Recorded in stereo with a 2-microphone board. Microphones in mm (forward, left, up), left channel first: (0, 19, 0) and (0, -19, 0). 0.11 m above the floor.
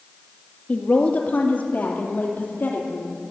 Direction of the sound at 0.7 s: 35° left (ahead or behind).